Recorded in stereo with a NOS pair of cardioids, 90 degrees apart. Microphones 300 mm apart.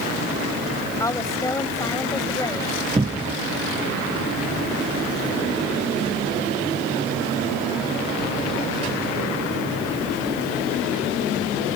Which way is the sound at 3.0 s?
15° right.